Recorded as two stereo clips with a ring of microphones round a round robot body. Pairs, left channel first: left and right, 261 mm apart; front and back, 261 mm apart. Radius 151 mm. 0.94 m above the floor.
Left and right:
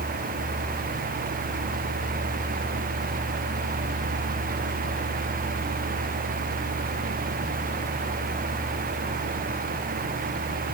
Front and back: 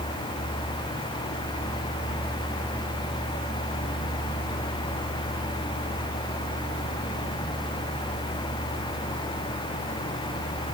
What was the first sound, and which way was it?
Only background noise.